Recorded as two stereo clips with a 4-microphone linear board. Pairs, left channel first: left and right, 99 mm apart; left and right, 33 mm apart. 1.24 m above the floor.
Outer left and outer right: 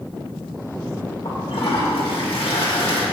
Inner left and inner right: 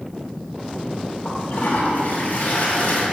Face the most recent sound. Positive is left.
turn(degrees=75)  # may be behind; listen again after turning